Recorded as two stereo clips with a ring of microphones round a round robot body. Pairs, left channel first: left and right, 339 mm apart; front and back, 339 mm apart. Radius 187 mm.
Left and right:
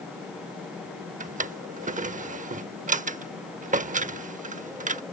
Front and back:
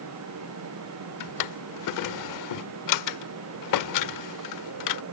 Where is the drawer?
25° right.